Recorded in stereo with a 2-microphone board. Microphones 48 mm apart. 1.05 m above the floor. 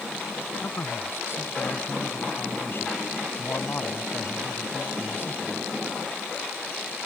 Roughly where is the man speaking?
Left.